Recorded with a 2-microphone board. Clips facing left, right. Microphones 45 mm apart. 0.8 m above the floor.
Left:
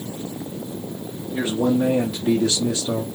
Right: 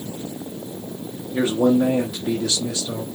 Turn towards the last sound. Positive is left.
turn(degrees=35)  # may be behind; listen again after turning